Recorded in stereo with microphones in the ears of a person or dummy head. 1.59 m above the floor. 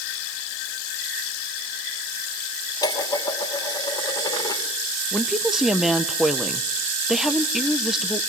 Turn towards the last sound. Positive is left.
turn(degrees=0)  # may be behind; listen again after turning